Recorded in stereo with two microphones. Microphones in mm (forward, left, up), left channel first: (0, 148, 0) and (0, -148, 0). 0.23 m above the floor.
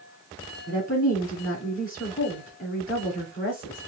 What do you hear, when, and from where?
0.7 s a woman speaking: 30° left (ahead or behind), 2 m